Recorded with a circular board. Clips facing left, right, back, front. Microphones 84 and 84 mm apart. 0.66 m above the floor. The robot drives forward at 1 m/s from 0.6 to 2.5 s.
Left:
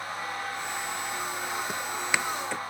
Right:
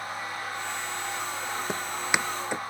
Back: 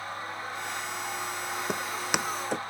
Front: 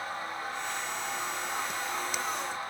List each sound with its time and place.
1.7 s footsteps: 155° right; by 2.6 s 165° right